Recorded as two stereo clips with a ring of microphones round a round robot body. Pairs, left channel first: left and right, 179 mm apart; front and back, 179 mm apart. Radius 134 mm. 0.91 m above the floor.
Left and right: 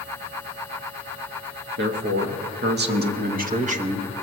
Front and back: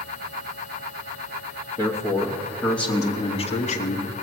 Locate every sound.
1.8 s a man speaking: 110° right, 1.7 m; by 4.1 s 30° right, 1.4 m